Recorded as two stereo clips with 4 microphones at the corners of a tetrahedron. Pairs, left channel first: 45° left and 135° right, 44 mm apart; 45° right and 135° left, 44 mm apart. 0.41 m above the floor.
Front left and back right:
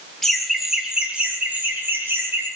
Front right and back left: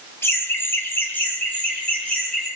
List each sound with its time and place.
0.2 s laughter: 35° right, 2.5 m; by 2.5 s 110° right, 3.5 m